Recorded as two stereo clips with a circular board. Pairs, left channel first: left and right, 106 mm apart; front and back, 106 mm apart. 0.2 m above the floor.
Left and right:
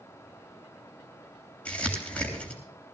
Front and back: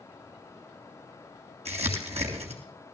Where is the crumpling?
170° left, 3 m.